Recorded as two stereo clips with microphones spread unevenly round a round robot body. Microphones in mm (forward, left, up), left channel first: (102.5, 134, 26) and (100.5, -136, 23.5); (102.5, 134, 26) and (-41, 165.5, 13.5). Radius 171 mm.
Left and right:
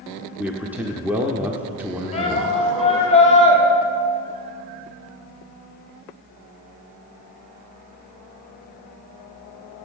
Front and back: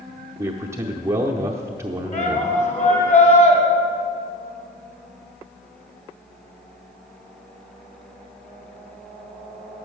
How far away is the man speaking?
About 0.7 m.